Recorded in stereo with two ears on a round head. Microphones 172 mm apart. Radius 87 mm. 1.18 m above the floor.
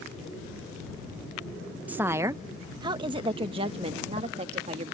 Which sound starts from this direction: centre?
A woman speaking, at 1.9 s.